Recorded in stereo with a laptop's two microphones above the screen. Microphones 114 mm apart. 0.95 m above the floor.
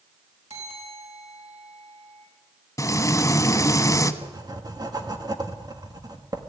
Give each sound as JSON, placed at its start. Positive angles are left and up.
{"t": 0.5, "sound": "a bell", "side_deg": -75, "distance_m": 6.0}
{"t": 2.8, "sound": "frying", "side_deg": 30, "distance_m": 1.1}
{"t": 4.2, "sound": "writing", "side_deg": -35, "distance_m": 1.5}